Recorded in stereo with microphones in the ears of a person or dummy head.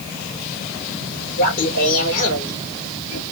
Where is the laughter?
50° left (ahead or behind), 3.5 m.